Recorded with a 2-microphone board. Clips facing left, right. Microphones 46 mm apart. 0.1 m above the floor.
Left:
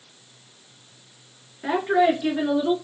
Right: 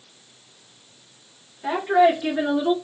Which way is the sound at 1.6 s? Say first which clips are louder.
Right 2 dB; 25° left (ahead or behind).